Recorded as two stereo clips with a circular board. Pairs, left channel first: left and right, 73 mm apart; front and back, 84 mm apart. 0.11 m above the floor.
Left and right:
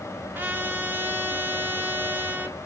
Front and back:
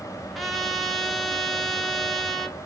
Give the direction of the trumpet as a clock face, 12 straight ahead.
3 o'clock.